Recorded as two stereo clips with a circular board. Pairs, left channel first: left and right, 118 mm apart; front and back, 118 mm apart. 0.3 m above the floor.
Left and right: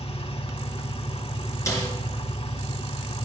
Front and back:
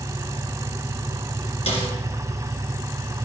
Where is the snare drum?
25° left, 3 m.